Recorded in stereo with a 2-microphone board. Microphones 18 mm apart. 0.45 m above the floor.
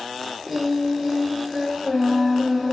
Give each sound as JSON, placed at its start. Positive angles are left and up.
{"t": 0.5, "sound": "singing", "side_deg": -5, "distance_m": 0.6}